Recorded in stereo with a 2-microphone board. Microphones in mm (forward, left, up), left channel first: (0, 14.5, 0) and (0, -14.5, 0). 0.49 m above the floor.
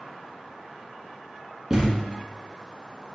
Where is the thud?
20° right (ahead or behind), 1.8 m.